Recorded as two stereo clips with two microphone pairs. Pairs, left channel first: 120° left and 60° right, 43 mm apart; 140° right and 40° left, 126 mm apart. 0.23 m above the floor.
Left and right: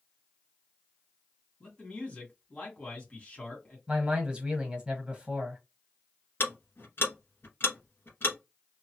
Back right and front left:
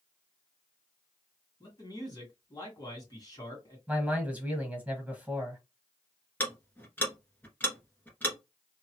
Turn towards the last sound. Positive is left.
turn(degrees=145)